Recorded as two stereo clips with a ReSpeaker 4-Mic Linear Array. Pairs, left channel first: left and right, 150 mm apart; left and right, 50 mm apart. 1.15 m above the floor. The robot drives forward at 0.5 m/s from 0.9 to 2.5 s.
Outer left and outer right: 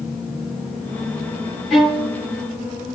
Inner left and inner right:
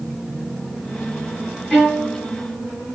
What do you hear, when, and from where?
1.7 s a violin: centre (ahead or behind), 3.5 m